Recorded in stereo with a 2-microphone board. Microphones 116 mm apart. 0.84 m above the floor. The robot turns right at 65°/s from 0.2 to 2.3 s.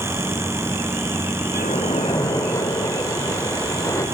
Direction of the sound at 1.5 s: 100° left.